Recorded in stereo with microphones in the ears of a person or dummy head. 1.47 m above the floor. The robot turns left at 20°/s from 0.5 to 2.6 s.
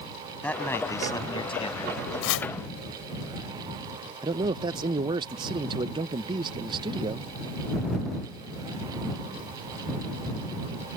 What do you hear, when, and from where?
0.4 s a man speaking: 10° left (ahead or behind); by 2.0 s 40° left (ahead or behind)
2.2 s chopping: 75° left (ahead or behind)
4.2 s a man speaking: 25° right (ahead or behind)